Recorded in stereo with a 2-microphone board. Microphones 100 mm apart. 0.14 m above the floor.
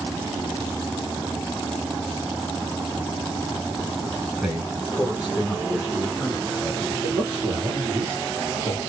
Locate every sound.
4.4 s a man speaking: 5° right (ahead or behind), 1.3 m; by 6.9 s 10° right (ahead or behind), 1.7 m
7.0 s a man speaking: 5° left (ahead or behind), 1.9 m